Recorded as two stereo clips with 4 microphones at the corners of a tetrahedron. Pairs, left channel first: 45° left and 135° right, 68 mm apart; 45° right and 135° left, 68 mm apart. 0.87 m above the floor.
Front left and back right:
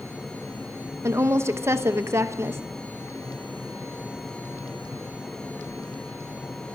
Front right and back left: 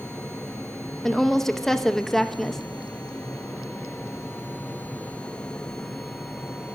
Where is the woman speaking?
130° right, 0.7 m.